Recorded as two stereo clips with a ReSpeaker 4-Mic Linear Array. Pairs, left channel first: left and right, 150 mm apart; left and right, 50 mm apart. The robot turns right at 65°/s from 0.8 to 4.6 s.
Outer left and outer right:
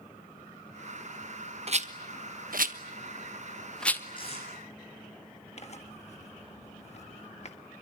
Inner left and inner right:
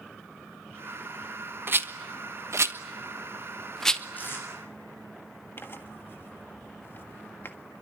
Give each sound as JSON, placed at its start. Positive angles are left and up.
{"t": 1.7, "sound": "a rattle", "side_deg": -45, "distance_m": 1.2}
{"t": 4.2, "sound": "tape being pulled", "side_deg": 35, "distance_m": 9.5}
{"t": 5.6, "sound": "tearing paper", "side_deg": 45, "distance_m": 1.7}